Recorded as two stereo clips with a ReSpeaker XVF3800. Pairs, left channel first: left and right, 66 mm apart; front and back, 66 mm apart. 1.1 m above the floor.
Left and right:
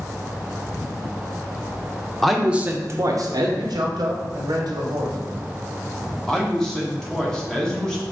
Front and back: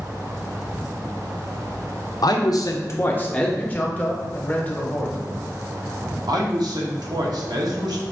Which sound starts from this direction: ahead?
A man speaking, at 2.2 s.